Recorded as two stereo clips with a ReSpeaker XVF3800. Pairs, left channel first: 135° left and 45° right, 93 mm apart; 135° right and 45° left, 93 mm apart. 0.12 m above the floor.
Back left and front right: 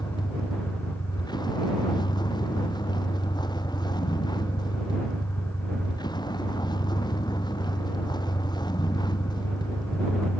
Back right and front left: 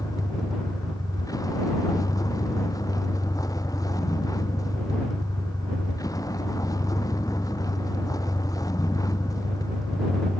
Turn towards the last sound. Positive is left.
turn(degrees=175)